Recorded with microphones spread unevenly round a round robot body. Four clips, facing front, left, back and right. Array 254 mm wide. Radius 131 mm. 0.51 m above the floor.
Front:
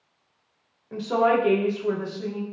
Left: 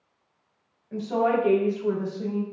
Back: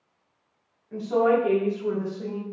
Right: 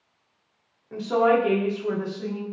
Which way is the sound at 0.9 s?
35° right.